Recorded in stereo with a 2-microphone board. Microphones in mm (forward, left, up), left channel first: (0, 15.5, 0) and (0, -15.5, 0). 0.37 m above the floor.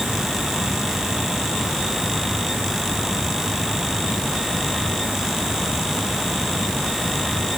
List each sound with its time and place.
Only background noise.